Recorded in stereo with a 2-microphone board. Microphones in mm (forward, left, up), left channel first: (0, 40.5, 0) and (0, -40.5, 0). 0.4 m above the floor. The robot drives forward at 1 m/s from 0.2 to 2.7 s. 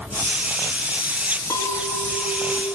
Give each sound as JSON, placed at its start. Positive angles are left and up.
{"t": 1.5, "sound": "a clink", "side_deg": 50, "distance_m": 2.5}